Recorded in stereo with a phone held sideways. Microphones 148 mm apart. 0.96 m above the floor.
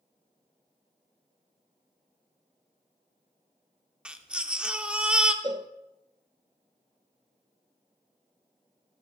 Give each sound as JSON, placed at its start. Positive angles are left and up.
{"t": 4.0, "sound": "a baby crying", "side_deg": -5, "distance_m": 0.7}
{"t": 5.4, "sound": "a cowbell", "side_deg": -30, "distance_m": 0.6}